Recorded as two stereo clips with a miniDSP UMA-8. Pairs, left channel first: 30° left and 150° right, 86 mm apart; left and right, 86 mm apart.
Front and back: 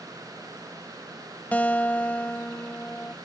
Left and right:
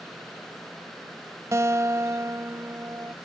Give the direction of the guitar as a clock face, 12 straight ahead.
1 o'clock.